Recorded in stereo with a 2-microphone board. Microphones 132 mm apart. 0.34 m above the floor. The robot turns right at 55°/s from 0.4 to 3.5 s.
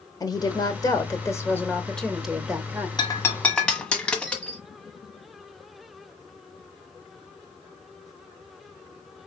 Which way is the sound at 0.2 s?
30° left (ahead or behind).